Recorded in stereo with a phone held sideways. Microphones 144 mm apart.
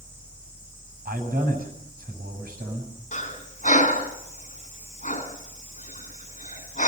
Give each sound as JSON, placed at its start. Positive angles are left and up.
{"t": 0.0, "sound": "a fan", "side_deg": -30, "distance_m": 9.5}
{"t": 1.1, "sound": "a man speaking", "side_deg": -85, "distance_m": 8.0}
{"t": 3.1, "sound": "breathing", "side_deg": 60, "distance_m": 3.0}